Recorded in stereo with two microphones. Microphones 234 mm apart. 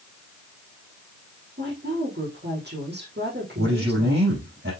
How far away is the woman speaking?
About 5.5 m.